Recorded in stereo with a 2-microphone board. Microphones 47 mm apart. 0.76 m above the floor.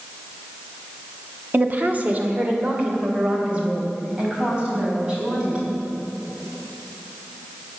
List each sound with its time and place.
1.5 s a woman speaking: 40° right (ahead or behind), 1.1 m; by 5.7 s 20° right (ahead or behind), 6 m